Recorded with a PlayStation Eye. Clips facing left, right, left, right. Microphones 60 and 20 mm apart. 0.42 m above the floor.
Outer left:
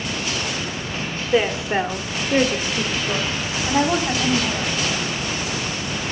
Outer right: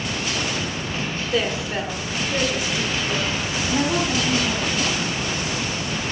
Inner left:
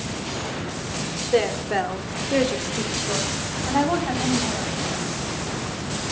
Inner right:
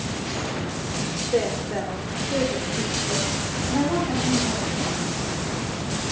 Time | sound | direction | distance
1.3 | a woman speaking | 25° left (ahead or behind) | 1.0 m